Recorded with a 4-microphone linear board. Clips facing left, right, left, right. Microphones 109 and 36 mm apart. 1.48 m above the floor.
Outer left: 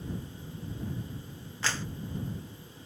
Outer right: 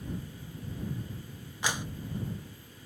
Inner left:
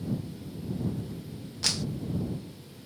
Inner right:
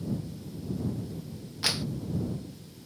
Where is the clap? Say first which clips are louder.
Outer right 1 dB, inner right 1 dB; 15° right (ahead or behind).